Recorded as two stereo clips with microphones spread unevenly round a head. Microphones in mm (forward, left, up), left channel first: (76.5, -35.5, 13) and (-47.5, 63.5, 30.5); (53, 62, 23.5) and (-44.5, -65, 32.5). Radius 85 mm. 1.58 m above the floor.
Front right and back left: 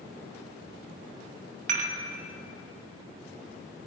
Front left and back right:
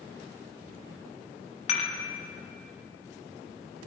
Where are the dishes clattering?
105° left, 2.0 m.